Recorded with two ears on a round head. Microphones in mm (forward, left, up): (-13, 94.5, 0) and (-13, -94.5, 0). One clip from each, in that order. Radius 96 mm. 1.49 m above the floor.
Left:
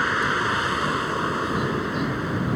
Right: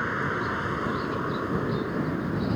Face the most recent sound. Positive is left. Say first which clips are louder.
# left 6 dB
turn(degrees=65)  # may be behind; listen again after turning